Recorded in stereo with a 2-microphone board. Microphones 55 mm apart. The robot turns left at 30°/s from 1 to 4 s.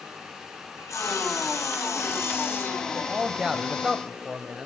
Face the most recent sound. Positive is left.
turn(degrees=-10)  # may be behind; listen again after turning